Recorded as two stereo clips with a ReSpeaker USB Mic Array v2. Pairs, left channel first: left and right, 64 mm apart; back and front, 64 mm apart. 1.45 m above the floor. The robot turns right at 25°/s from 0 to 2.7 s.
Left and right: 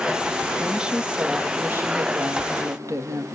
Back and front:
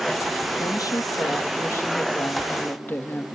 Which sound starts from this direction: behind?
A woman speaking, at 0.6 s.